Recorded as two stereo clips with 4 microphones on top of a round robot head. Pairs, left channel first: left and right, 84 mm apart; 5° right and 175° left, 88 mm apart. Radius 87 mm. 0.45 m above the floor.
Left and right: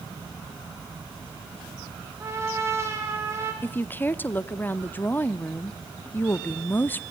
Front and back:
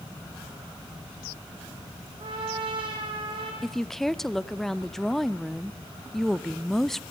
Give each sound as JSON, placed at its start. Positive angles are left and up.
{"t": 2.2, "sound": "a trumpet", "azimuth_deg": -150, "distance_m": 4.0}
{"t": 3.6, "sound": "a woman speaking", "azimuth_deg": 75, "distance_m": 0.7}